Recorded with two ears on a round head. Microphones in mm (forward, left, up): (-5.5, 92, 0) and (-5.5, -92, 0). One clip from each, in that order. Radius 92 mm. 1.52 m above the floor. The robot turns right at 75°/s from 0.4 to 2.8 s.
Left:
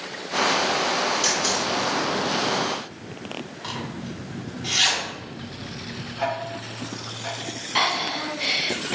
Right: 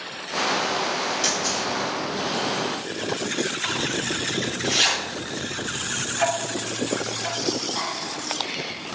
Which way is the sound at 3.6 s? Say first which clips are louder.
Right 8 dB; 10° right (ahead or behind).